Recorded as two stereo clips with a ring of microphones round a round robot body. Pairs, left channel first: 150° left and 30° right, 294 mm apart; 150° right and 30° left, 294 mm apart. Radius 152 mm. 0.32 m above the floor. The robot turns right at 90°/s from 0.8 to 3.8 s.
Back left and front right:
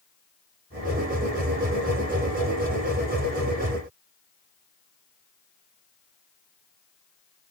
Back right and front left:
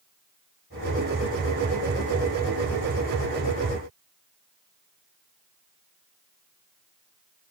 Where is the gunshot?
No gunshot in this recording.